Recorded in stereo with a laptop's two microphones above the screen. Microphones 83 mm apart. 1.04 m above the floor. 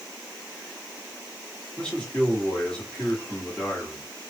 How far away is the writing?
No writing in this recording.